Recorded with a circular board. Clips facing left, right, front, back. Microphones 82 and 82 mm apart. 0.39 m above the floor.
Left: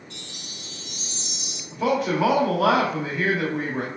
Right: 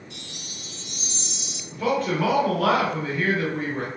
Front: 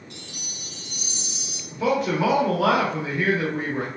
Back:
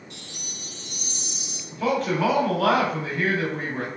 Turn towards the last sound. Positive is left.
turn(degrees=35)